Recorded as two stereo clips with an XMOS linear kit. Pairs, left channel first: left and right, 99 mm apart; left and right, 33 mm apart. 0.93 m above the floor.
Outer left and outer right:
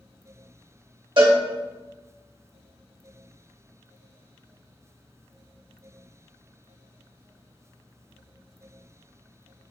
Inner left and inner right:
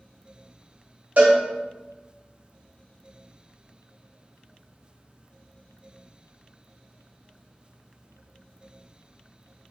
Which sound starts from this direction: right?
A cowbell, at 1.2 s.